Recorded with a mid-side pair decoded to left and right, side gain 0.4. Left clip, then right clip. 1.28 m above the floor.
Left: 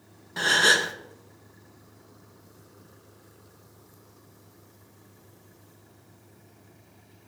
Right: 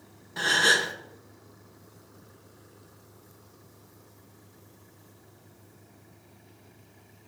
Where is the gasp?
25° left, 0.9 m.